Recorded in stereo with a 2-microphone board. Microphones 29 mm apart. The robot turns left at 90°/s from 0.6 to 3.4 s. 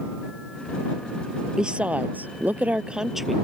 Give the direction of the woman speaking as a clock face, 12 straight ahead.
1 o'clock.